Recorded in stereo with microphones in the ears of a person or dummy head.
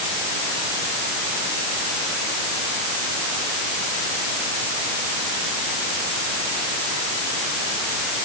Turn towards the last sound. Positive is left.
No sound to turn to.